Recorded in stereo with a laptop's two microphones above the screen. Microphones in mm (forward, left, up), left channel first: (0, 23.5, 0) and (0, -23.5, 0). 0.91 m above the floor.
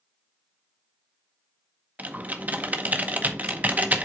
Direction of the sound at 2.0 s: 35° right (ahead or behind).